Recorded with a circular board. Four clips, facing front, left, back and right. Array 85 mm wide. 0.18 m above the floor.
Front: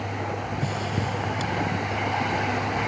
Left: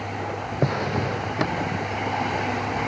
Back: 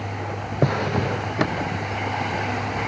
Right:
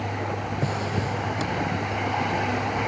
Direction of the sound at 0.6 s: 155° left.